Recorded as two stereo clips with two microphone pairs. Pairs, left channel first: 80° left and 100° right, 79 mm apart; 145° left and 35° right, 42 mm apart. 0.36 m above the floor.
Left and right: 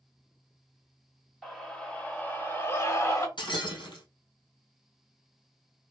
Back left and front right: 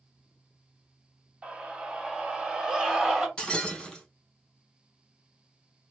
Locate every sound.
1.4 s a scream: straight ahead, 1.3 m; by 3.3 s 40° left, 1.9 m
3.4 s breaking glass: 70° left, 2.5 m